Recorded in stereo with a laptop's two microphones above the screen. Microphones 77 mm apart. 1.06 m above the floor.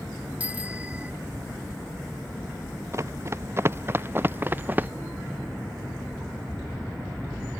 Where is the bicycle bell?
20° right (ahead or behind).